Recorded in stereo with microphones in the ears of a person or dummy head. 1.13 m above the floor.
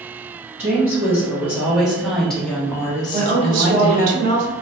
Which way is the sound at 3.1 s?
45° right (ahead or behind).